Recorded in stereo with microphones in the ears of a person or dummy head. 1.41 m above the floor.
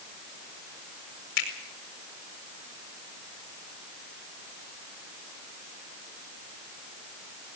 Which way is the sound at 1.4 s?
75° left (ahead or behind).